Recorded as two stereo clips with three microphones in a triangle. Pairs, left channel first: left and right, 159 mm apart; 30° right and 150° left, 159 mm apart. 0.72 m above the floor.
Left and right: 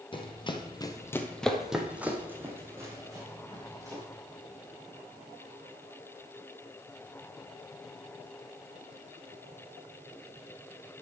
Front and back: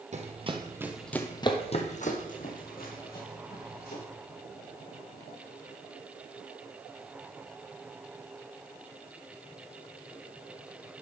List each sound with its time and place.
0.1 s running footsteps: 135° left, 1.1 m; by 4.0 s 20° right, 3 m